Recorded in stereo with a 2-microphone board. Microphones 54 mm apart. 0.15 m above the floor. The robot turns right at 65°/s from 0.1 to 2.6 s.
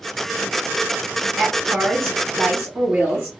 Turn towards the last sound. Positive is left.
turn(degrees=-35)